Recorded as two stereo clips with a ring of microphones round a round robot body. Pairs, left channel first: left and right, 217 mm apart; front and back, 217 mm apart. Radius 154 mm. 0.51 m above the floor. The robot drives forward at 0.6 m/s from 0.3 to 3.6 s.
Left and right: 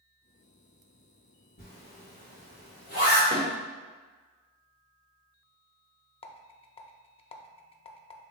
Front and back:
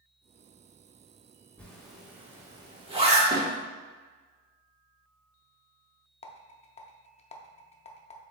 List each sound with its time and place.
1.6 s a zipper: 80° left, 1.5 m; by 3.2 s 130° left, 1.7 m
3.3 s a snare drum: 170° left, 1.3 m; by 3.5 s 175° left, 1.4 m
6.2 s a rattle: 40° left, 0.6 m